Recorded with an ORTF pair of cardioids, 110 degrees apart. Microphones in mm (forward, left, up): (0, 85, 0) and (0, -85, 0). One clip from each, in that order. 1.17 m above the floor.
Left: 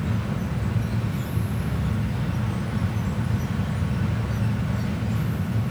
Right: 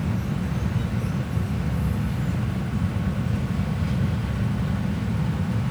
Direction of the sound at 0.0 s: 10° right.